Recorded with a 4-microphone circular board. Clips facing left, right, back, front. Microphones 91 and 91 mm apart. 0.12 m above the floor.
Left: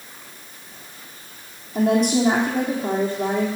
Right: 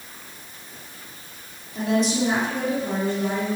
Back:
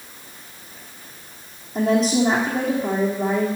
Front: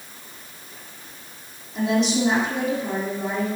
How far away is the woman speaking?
About 3.5 m.